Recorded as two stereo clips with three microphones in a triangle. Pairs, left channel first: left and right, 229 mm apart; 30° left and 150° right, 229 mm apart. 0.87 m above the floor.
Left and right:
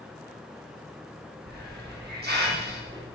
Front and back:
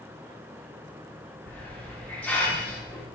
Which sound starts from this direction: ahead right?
A hiss, at 1.5 s.